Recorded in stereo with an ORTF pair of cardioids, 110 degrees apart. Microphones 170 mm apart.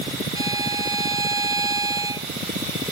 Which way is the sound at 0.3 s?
20° right.